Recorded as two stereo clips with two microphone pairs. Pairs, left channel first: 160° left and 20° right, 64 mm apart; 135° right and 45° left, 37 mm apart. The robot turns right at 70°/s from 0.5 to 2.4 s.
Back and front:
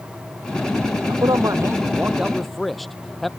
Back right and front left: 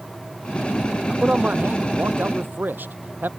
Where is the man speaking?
20° right; by 3.3 s 70° left.